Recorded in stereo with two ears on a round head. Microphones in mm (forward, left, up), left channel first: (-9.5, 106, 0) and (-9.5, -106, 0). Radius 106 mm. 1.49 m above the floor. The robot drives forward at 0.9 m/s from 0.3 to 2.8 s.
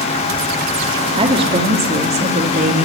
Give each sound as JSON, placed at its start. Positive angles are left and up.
{"t": 1.2, "sound": "a woman speaking", "side_deg": -20, "distance_m": 4.0}